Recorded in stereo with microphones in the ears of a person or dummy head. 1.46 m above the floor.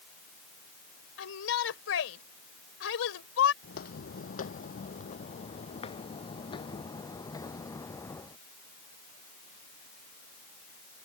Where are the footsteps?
50° left (ahead or behind); by 8.4 s 15° left (ahead or behind).